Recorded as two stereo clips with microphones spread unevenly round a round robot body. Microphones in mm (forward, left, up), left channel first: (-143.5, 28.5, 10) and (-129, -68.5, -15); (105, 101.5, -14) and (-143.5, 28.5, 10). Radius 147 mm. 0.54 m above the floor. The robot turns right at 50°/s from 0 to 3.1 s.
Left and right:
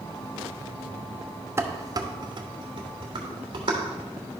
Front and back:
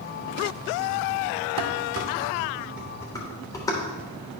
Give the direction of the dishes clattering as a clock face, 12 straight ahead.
4 o'clock.